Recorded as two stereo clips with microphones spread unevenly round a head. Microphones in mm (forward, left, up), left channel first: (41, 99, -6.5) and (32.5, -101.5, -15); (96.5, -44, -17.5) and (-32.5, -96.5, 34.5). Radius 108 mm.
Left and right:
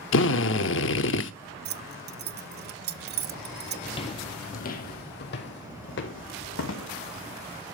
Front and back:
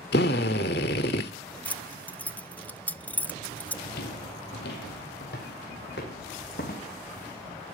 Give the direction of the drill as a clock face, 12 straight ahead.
10 o'clock.